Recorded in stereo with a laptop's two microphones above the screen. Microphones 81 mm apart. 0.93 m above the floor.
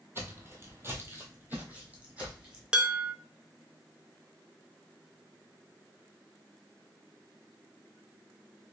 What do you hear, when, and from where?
0.1 s footsteps: 30° right (ahead or behind), 1.2 m; by 2.6 s 10° right (ahead or behind), 1.8 m
2.7 s dishes clattering: 10° right (ahead or behind), 0.7 m